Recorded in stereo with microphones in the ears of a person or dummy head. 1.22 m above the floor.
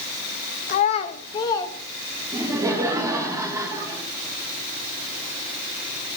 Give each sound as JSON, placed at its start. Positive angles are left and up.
{"t": 0.7, "sound": "a child speaking", "side_deg": 40, "distance_m": 0.7}
{"t": 2.3, "sound": "laughter", "side_deg": -15, "distance_m": 1.8}